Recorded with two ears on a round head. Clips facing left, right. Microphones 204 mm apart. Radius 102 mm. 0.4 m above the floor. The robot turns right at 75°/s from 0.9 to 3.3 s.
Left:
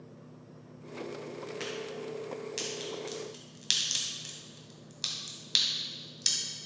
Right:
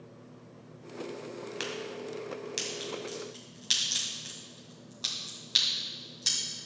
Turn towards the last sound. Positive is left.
turn(degrees=35)  # may be behind; listen again after turning